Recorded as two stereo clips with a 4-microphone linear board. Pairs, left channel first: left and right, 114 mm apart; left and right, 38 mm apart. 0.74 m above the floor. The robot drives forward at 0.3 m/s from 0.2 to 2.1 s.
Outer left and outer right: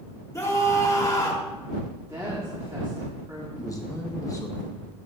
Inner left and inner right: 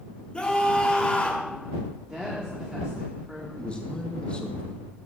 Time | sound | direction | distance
0.3 | a scream | 25° left (ahead or behind) | 1.7 m
2.1 | a woman speaking | 30° right (ahead or behind) | 1.5 m
3.6 | a man speaking | 30° left (ahead or behind) | 1.1 m